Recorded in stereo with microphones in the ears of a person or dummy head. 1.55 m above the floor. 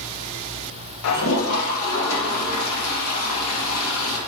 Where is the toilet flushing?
70° left (ahead or behind), 1.5 m.